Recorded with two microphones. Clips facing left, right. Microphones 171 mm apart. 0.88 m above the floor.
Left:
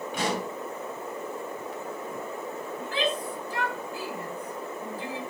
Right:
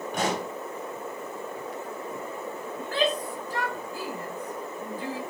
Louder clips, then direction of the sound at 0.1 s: Right 1 dB; 45° right (ahead or behind).